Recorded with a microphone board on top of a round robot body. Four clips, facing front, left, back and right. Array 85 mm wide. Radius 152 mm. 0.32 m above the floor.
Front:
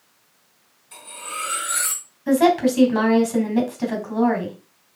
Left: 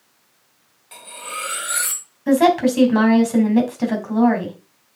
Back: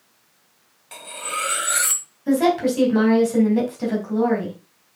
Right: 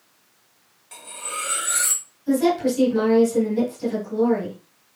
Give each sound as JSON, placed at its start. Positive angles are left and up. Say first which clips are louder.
{"t": 0.9, "sound": "cutlery clinking", "louder": "left 1 dB, back 4 dB", "azimuth_deg": 170, "distance_m": 1.7}
{"t": 2.3, "sound": "a woman speaking", "louder": "left 5 dB, front 2 dB", "azimuth_deg": 85, "distance_m": 3.0}